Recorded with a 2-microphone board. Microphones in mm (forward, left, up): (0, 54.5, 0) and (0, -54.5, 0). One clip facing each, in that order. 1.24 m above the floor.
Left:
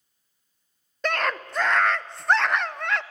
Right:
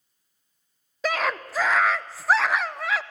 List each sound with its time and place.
1.0 s a scream: 5° right (ahead or behind), 0.7 m